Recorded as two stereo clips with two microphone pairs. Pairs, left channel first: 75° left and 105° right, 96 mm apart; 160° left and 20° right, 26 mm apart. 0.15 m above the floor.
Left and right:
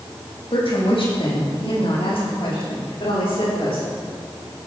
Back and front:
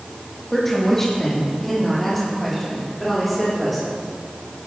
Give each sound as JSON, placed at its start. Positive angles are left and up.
{"t": 0.5, "sound": "a woman speaking", "azimuth_deg": 85, "distance_m": 6.0}